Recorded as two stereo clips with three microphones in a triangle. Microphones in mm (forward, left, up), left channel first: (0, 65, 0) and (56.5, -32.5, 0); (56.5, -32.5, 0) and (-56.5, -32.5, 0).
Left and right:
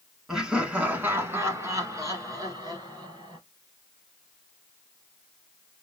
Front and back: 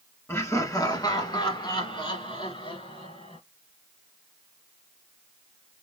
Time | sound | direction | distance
0.3 | laughter | 20° left | 1.2 m